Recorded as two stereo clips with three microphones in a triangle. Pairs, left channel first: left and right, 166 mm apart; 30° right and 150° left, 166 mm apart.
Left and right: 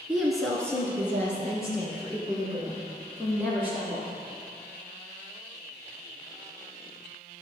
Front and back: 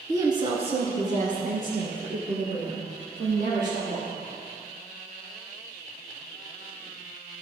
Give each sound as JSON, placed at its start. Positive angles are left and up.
{"t": 0.1, "sound": "a woman speaking", "azimuth_deg": -165, "distance_m": 1.1}